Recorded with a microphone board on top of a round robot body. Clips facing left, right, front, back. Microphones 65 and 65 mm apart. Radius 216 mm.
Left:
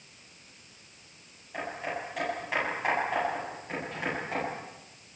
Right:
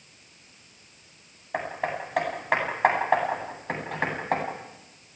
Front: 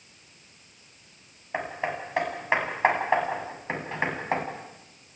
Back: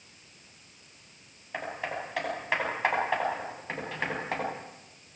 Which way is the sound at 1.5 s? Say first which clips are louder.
Right 5 dB, front 4 dB; 60° right.